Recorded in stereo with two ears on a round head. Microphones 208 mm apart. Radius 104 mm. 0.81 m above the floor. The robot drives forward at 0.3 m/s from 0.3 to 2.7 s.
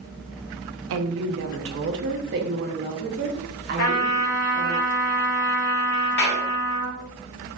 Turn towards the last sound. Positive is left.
turn(degrees=50)  # may be behind; listen again after turning